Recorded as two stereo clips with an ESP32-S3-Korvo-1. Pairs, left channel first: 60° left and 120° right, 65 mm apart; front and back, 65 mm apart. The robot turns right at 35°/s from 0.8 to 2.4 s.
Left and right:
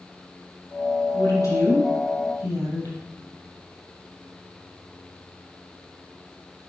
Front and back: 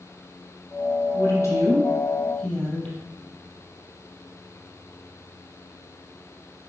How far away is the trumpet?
I don't hear a trumpet.